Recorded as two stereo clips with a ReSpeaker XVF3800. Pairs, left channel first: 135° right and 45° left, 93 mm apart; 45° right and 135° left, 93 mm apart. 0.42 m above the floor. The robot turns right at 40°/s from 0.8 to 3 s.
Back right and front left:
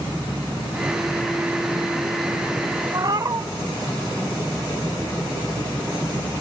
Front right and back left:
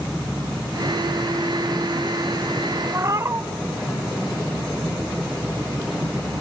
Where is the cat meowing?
80° left, 0.6 m; by 3.5 s 85° left, 0.6 m.